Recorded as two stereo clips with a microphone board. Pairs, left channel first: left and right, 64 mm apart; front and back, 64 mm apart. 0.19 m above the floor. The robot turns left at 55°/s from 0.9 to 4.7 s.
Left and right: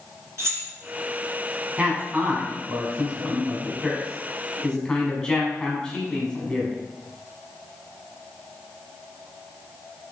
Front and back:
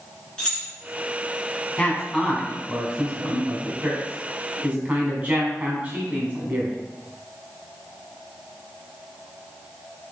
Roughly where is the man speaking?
Ahead right.